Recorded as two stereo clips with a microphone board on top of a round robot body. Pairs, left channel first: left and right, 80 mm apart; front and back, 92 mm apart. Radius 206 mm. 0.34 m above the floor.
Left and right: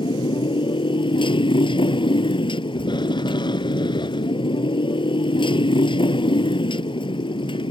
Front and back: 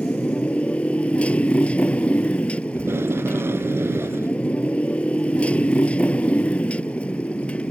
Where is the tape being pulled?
115° left.